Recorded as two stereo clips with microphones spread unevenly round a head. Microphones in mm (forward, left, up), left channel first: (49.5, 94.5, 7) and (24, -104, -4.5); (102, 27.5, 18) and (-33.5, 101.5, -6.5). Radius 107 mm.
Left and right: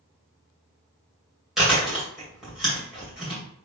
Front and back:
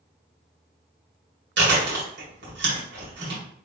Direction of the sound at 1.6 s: 170° left.